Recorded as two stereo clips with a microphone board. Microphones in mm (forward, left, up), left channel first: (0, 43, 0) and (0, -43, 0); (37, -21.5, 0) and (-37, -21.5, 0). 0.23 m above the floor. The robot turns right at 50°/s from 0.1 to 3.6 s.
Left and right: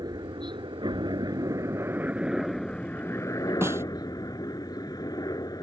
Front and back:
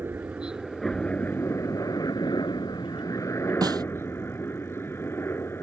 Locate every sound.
0.0 s a helicopter: 120° right; by 5.6 s 55° left
3.6 s a snare drum: 150° right